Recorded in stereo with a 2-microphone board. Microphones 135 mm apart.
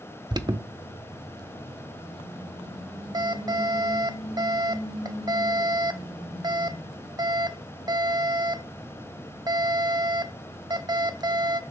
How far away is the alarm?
About 0.6 m.